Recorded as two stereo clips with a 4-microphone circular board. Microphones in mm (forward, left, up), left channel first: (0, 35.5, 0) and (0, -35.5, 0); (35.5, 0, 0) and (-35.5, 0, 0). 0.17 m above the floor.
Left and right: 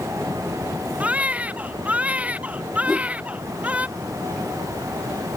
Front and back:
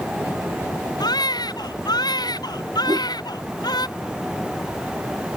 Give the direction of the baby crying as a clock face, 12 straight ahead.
1 o'clock.